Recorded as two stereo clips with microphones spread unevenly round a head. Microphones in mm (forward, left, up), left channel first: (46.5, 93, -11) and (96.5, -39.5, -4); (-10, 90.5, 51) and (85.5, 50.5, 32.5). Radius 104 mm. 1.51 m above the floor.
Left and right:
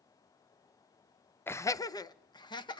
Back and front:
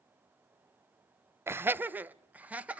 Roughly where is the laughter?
Ahead left.